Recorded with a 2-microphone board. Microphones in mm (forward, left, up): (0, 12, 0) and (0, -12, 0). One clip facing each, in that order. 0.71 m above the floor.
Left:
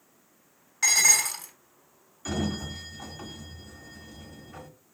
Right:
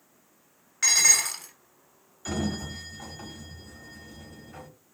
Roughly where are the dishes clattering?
Centre.